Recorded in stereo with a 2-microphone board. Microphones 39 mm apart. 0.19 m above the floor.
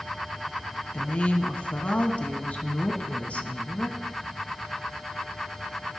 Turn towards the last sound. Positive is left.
turn(degrees=40)  # may be behind; listen again after turning